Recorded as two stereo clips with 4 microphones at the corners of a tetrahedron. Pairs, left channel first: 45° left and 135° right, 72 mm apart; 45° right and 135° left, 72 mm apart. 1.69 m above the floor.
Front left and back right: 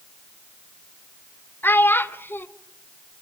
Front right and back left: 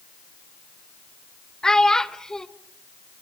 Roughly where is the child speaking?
Ahead left.